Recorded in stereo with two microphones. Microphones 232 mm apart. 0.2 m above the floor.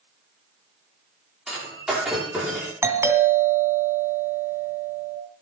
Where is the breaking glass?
5° right (ahead or behind), 10 m.